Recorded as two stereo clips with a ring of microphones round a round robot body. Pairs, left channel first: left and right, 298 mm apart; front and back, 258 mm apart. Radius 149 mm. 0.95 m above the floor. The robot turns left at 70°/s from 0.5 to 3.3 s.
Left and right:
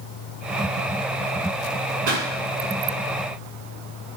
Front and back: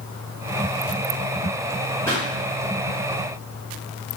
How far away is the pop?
About 3 m.